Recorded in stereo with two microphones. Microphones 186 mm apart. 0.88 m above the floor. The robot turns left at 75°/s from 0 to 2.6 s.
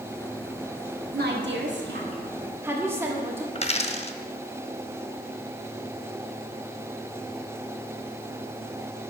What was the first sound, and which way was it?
A woman speaking, 55° right.